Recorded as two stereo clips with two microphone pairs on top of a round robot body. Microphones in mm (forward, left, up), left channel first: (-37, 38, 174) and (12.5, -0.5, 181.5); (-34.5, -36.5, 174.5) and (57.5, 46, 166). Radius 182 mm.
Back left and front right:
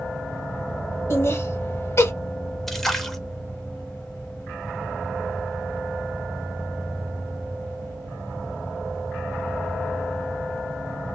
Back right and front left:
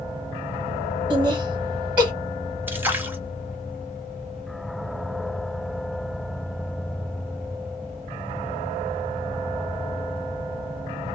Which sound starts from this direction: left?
A splash, at 2.7 s.